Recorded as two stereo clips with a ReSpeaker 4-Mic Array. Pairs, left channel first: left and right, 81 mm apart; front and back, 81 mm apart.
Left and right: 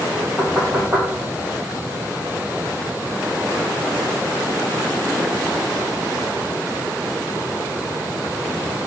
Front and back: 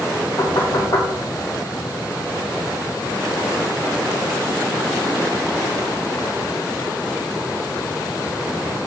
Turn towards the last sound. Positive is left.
turn(degrees=-10)